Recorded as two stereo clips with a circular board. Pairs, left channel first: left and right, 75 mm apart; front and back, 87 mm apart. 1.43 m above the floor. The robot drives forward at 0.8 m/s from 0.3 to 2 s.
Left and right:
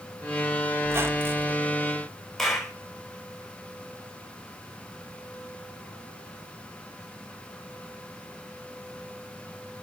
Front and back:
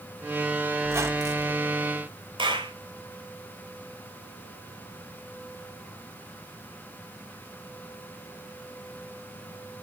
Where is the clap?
175° left, 4 m.